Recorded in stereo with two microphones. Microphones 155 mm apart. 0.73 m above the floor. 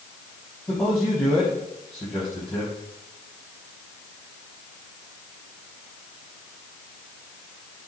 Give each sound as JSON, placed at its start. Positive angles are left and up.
{"t": 0.7, "sound": "a man speaking", "side_deg": 15, "distance_m": 6.5}